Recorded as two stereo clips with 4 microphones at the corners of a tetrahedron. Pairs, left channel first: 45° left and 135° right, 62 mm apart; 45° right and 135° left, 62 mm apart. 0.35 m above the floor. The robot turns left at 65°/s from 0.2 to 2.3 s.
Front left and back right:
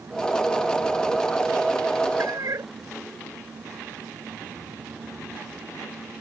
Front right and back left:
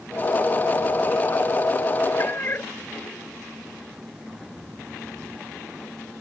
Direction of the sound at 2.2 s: 95° right.